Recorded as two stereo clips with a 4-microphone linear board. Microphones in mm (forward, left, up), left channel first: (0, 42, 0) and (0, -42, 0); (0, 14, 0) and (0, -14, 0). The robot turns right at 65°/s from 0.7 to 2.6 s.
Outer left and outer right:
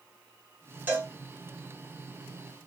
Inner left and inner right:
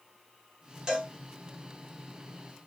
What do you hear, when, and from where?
0.9 s a cowbell: 20° right (ahead or behind), 2.5 m; by 1.1 s 35° right (ahead or behind), 2.5 m